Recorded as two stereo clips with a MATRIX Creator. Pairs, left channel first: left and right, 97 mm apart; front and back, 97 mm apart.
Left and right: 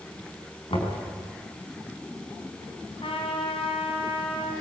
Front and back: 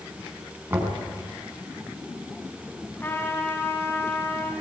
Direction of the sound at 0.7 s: 115° left.